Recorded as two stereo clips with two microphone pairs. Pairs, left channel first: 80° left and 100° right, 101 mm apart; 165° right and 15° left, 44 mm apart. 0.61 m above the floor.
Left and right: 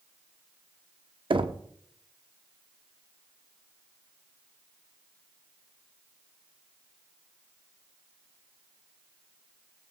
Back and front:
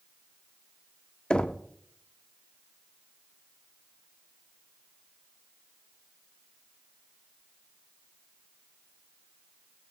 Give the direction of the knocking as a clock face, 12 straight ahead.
3 o'clock.